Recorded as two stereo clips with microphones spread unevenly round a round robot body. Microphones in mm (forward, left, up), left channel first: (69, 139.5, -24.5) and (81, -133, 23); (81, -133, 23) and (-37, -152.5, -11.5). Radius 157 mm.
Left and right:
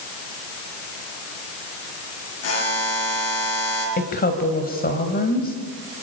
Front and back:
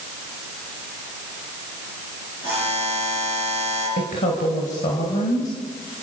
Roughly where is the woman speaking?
Ahead left.